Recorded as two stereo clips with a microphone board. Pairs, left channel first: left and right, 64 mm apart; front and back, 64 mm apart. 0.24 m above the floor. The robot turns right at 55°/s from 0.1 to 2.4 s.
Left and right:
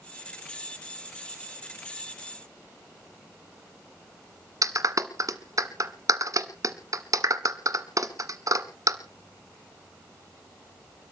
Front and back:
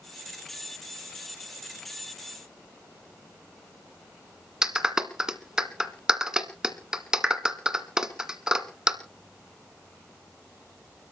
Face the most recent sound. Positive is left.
turn(degrees=-105)